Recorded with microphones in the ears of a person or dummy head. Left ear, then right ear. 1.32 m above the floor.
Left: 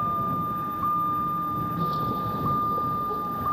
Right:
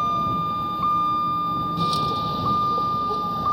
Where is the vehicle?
70° right (ahead or behind); by 3.5 s 65° right (ahead or behind).